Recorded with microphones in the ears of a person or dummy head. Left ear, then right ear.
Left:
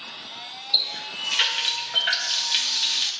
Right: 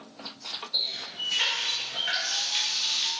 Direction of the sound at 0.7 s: 45° left (ahead or behind).